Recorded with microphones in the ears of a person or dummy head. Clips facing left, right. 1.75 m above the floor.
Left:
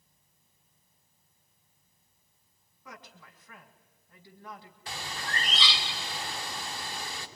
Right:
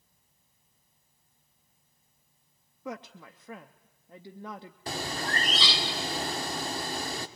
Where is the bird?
35° right (ahead or behind), 1.0 m.